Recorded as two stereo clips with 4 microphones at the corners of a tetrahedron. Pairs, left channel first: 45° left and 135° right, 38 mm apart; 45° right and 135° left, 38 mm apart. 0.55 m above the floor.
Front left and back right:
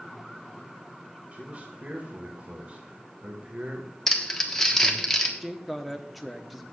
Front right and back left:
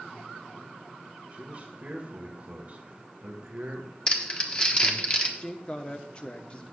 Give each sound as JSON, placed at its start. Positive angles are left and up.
{"t": 1.3, "sound": "a man speaking", "azimuth_deg": 180, "distance_m": 2.0}
{"t": 4.1, "sound": "crumpling", "azimuth_deg": -20, "distance_m": 1.3}
{"t": 5.4, "sound": "a woman speaking", "azimuth_deg": -45, "distance_m": 1.0}